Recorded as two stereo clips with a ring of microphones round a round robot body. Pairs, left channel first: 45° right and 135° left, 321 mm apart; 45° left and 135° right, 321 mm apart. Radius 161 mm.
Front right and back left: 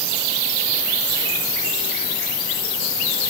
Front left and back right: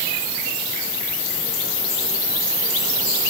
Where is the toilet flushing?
No toilet flushing in this recording.